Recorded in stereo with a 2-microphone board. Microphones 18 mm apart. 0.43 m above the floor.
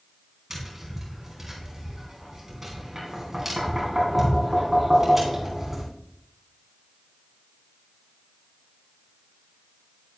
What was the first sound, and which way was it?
Tapping, 20° right (ahead or behind).